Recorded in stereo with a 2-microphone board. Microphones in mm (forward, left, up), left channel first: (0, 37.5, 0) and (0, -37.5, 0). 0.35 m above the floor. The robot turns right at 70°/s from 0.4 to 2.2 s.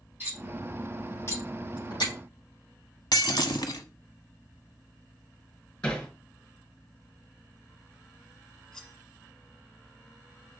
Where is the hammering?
20° left (ahead or behind), 3.5 m.